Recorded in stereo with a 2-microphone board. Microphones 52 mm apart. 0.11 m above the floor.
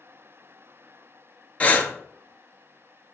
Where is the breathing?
30° left (ahead or behind), 0.5 m.